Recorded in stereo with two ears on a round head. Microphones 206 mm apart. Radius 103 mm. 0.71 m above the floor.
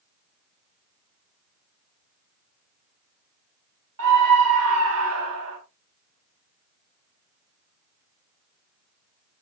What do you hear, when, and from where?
4.0 s a scream: 70° right (ahead or behind), 6 m